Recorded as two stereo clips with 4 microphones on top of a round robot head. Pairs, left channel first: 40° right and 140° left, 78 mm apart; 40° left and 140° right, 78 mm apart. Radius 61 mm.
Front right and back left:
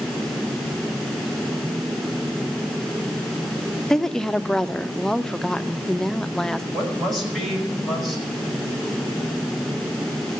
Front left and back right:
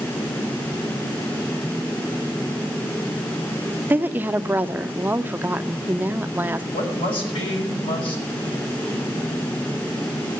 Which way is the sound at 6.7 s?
50° left.